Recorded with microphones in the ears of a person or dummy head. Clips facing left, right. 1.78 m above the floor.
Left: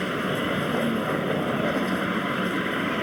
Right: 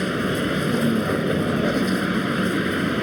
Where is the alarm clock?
No alarm clock in this recording.